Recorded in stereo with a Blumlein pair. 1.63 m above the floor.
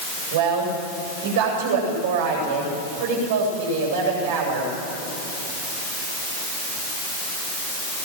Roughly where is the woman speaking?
Ahead right.